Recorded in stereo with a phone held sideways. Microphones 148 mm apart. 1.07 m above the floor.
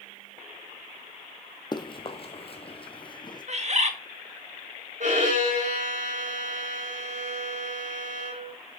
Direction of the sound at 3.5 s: 50° right (ahead or behind).